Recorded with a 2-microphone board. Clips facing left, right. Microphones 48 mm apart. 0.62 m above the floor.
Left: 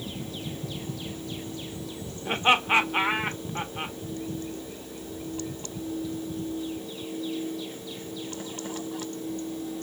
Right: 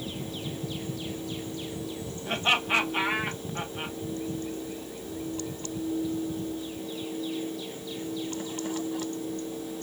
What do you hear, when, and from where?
2.2 s laughter: 25° left (ahead or behind), 1.0 m